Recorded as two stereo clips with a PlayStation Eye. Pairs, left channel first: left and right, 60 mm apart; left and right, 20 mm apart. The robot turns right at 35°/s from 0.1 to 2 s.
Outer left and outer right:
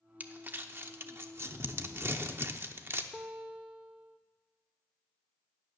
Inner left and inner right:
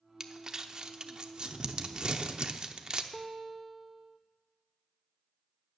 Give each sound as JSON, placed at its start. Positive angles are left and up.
{"t": 0.2, "sound": "crumpling", "side_deg": -30, "distance_m": 0.8}
{"t": 3.1, "sound": "a guitar", "side_deg": -25, "distance_m": 0.8}